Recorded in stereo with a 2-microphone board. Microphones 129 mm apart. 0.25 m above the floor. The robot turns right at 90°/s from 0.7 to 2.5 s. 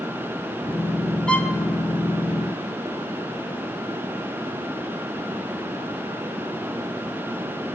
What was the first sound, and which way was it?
A violin, 5° left (ahead or behind).